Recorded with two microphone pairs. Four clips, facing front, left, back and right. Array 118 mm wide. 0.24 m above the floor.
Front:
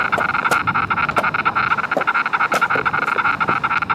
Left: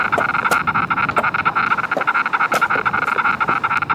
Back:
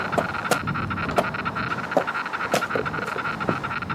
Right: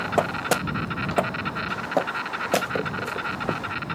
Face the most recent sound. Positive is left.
turn(degrees=50)